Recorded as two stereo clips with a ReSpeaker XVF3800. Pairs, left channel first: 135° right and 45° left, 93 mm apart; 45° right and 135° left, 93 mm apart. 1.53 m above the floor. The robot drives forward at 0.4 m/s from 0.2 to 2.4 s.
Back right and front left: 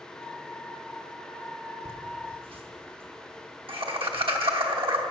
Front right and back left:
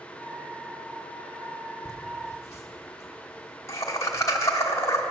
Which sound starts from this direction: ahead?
Laughter, at 1.9 s.